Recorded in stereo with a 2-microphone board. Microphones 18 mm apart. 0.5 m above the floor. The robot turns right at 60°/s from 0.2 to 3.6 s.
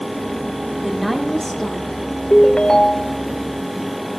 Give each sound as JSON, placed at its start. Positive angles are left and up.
{"t": 0.8, "sound": "a woman speaking", "azimuth_deg": -15, "distance_m": 1.3}
{"t": 2.3, "sound": "a ringtone", "azimuth_deg": 85, "distance_m": 0.6}